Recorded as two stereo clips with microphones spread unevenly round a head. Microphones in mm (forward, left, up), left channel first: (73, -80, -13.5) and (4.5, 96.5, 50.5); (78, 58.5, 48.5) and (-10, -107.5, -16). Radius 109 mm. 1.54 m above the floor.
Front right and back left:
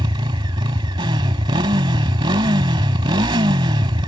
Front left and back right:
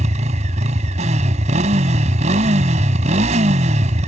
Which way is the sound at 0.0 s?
175° left.